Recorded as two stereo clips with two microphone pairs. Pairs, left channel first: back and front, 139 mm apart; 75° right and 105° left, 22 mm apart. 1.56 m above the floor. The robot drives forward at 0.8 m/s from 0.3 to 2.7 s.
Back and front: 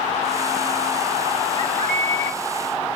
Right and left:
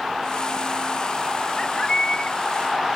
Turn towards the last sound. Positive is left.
turn(degrees=-30)